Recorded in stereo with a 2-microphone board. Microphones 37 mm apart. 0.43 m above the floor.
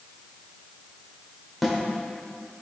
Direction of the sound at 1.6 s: 5° right (ahead or behind).